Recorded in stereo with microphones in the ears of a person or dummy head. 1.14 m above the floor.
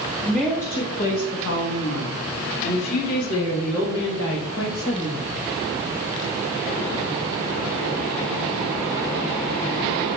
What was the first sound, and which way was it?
A woman speaking, 5° left (ahead or behind).